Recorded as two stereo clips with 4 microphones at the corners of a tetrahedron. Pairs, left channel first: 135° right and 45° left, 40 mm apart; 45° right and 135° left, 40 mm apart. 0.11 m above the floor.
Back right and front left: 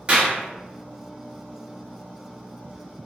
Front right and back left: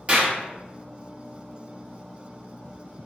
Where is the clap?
95° left, 1.8 m.